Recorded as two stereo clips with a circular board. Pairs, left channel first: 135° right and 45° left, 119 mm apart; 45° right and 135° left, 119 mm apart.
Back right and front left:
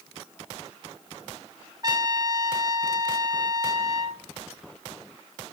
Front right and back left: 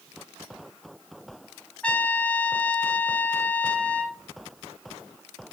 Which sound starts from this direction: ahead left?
A trumpet, at 1.8 s.